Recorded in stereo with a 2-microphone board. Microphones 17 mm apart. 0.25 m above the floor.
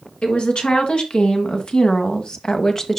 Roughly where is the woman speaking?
Left.